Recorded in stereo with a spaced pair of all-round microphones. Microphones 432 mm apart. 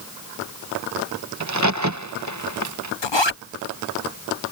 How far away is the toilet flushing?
I don't hear a toilet flushing.